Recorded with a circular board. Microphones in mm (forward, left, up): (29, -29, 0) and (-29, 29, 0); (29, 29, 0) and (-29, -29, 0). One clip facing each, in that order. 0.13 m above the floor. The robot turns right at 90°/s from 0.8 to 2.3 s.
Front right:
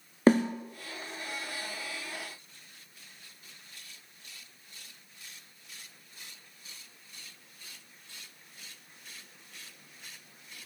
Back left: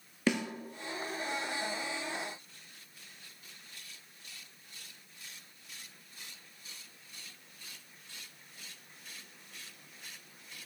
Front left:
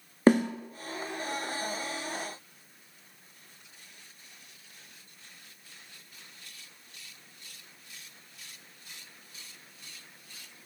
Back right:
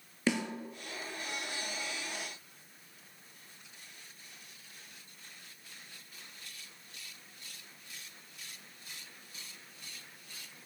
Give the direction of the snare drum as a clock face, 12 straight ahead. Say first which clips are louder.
Front right 9 dB, front left 11 dB; 12 o'clock.